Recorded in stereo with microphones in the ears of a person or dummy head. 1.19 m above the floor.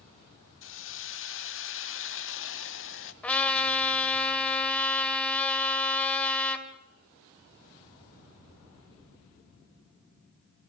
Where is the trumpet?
5° left (ahead or behind), 2 m.